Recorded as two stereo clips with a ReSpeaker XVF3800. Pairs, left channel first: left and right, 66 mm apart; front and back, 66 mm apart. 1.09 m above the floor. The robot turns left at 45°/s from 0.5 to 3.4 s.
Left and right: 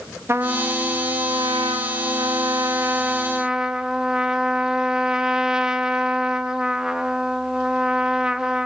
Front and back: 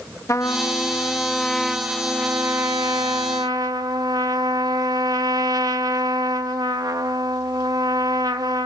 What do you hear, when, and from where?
0.3 s a trumpet: 40° right, 1.0 m; by 8.7 s 170° right, 1.0 m